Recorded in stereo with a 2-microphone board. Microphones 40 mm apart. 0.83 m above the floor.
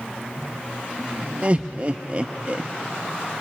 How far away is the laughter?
About 0.6 m.